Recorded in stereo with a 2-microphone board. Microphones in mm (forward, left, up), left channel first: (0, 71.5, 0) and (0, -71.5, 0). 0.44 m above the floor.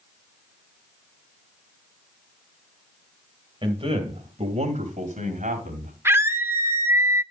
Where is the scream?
15° right (ahead or behind), 0.8 m.